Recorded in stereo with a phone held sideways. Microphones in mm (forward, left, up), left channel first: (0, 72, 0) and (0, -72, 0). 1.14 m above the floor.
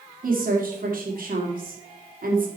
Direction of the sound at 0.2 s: 80° right.